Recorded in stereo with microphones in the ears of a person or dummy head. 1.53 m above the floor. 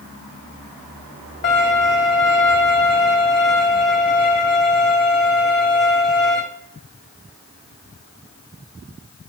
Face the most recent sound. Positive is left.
turn(degrees=50)  # may be behind; listen again after turning